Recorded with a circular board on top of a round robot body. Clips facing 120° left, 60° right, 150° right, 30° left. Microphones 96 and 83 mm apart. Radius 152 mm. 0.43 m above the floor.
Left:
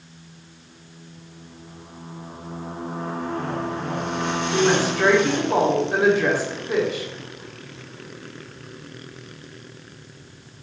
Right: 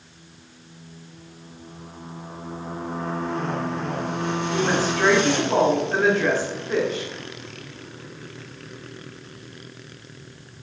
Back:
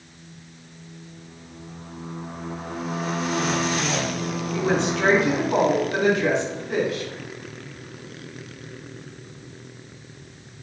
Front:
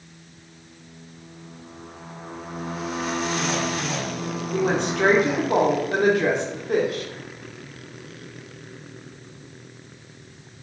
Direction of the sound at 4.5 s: 45° left.